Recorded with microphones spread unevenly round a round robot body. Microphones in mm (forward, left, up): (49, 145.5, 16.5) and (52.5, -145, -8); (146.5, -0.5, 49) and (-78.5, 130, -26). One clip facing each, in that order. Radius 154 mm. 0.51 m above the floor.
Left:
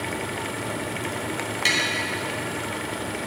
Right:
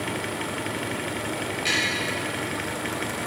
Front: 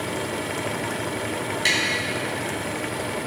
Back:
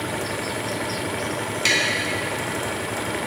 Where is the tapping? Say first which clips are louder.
Left 2 dB, back 2 dB; 70° left, 3.5 m.